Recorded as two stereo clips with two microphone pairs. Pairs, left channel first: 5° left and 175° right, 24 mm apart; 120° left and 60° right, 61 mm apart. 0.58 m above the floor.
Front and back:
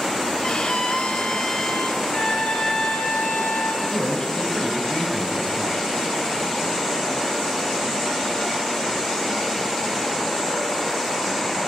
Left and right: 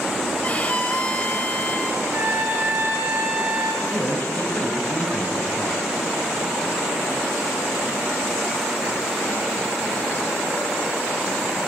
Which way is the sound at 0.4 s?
55° left.